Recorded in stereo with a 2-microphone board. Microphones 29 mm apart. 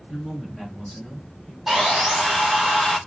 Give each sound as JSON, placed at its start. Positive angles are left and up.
{"t": 0.1, "sound": "a woman speaking", "side_deg": 0, "distance_m": 3.0}
{"t": 1.7, "sound": "sawing", "side_deg": -10, "distance_m": 2.0}